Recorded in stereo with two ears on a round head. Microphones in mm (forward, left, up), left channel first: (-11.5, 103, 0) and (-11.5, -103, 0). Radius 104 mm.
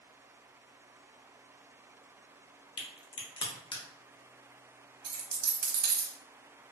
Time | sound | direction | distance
2.8 | a crack | 20° left (ahead or behind) | 0.6 m
5.0 | a dropped coin | 75° right (ahead or behind) | 0.9 m